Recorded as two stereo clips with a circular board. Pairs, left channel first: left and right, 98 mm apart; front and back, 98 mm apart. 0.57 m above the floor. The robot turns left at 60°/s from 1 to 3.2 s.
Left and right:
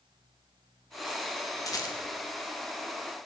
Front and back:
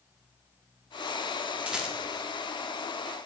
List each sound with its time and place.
1.7 s a rattle: 105° left, 0.9 m; by 2.0 s 90° left, 0.9 m